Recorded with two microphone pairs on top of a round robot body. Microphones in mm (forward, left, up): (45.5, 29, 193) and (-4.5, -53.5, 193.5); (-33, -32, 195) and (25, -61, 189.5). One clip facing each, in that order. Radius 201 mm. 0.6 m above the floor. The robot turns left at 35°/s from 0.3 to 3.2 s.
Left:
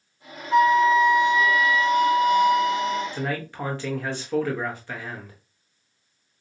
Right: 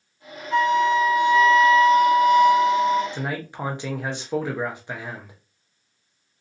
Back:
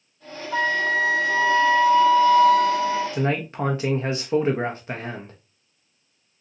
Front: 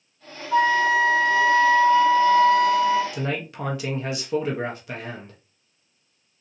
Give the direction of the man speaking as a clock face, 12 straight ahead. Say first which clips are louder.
Left 1 dB, back 4 dB; 6 o'clock.